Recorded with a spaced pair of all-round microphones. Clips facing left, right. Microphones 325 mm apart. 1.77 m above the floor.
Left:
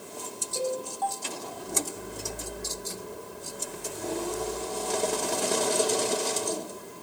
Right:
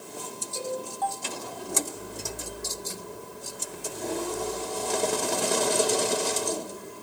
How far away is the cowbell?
About 4.5 m.